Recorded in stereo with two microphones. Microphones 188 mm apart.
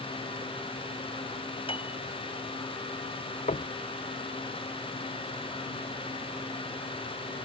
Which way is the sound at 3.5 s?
40° left (ahead or behind).